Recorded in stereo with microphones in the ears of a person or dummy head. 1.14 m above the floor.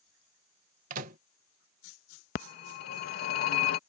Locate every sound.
0.9 s a microwave: 45° right (ahead or behind)
2.4 s a phone ringing: 45° left (ahead or behind)